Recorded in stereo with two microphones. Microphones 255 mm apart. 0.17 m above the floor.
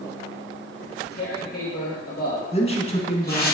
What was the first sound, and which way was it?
Tearing paper, 40° left (ahead or behind).